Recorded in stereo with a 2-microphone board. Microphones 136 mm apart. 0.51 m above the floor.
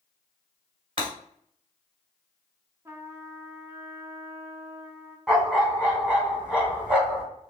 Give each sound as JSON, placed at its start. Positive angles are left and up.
{"t": 1.0, "sound": "breaking glass", "side_deg": -40, "distance_m": 2.0}
{"t": 2.9, "sound": "a trumpet", "side_deg": -20, "distance_m": 0.8}
{"t": 5.3, "sound": "a dog barking", "side_deg": -5, "distance_m": 1.6}